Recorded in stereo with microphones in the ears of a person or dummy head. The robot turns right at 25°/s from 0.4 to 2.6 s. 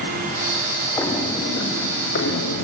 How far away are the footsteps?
About 3.5 m.